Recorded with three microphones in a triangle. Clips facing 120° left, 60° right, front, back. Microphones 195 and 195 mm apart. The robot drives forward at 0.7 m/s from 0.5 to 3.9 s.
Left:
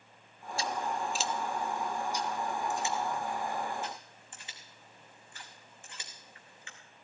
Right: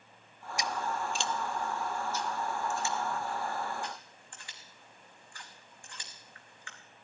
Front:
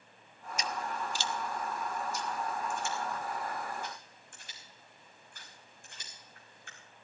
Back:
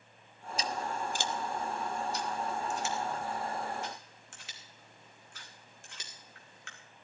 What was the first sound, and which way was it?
Scissors, 130° right.